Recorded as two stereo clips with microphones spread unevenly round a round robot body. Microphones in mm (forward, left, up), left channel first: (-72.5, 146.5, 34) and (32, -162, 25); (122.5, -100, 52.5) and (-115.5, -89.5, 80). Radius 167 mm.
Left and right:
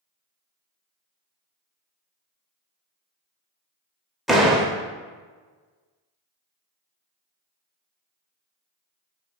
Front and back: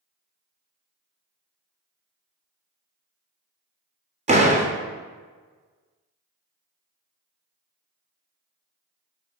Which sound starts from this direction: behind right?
A door slam, at 4.3 s.